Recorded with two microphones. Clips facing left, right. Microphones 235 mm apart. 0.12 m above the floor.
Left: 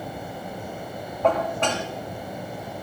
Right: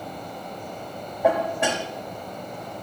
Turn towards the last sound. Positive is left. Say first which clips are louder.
# right 1 dB
turn(degrees=-10)  # may be behind; listen again after turning